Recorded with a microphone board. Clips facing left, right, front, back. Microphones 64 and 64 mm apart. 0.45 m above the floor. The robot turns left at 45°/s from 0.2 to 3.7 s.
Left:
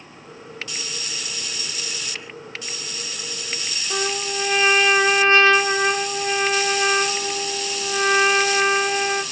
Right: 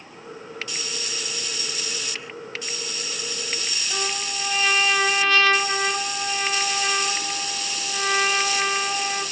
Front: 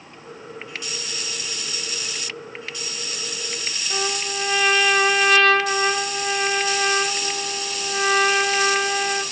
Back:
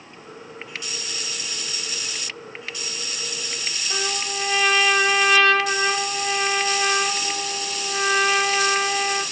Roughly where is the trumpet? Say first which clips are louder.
Left 5 dB, front 2 dB; left.